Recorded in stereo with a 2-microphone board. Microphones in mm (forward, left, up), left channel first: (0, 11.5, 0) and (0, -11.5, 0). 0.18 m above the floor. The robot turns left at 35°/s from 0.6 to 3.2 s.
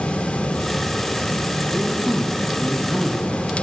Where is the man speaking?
35° right, 6 m; by 3.5 s 85° right, 6 m.